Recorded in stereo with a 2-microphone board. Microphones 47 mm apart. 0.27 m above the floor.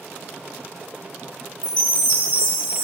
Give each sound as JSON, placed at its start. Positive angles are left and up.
{"t": 1.6, "sound": "a chime", "side_deg": 20, "distance_m": 1.2}